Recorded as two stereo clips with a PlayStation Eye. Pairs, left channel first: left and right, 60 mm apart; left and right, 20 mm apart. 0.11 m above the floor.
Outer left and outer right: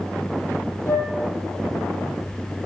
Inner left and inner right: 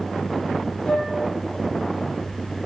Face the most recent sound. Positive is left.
turn(degrees=50)  # may be behind; listen again after turning